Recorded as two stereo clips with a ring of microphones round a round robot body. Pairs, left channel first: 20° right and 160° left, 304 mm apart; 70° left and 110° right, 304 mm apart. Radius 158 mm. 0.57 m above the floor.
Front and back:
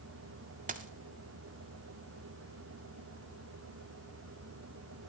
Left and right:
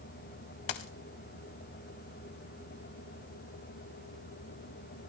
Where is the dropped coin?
90° left, 0.9 m.